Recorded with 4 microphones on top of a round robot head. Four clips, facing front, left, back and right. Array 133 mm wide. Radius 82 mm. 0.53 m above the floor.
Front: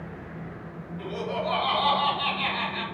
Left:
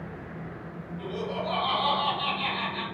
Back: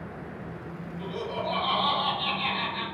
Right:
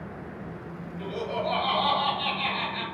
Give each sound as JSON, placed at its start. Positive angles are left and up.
{"t": 1.0, "sound": "laughter", "azimuth_deg": 5, "distance_m": 1.7}